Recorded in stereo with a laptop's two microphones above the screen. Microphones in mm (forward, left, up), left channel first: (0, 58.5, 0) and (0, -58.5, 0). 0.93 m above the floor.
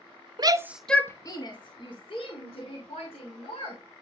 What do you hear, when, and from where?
0.4 s a shout: 45° right (ahead or behind), 0.8 m; by 3.8 s 65° left (ahead or behind), 4.5 m